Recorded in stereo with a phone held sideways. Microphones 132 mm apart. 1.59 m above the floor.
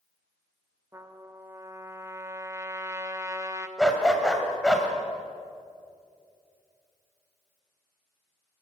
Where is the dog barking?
5° left (ahead or behind), 2.5 m.